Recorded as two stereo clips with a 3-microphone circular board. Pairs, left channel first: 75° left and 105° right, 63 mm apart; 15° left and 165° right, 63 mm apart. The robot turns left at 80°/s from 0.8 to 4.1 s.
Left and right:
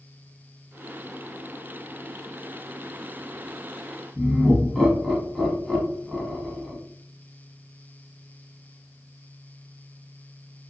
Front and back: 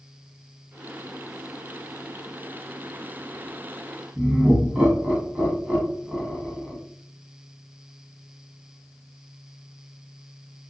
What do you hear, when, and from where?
4.2 s laughter: 160° left, 1.0 m